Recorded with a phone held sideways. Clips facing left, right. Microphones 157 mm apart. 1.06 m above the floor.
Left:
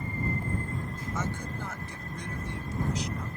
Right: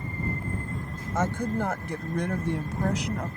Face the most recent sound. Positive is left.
turn(degrees=-75)  # may be behind; listen again after turning